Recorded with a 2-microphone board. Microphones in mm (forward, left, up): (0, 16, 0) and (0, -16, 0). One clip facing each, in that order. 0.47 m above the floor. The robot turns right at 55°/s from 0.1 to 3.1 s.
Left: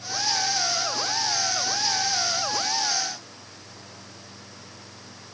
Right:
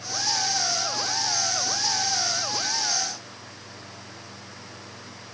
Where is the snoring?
No snoring in this recording.